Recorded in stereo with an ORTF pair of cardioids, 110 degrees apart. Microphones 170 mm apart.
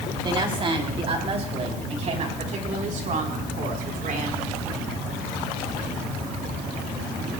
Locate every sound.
0.2 s a woman speaking: 30° right, 3.5 m; by 4.5 s 55° right, 4.5 m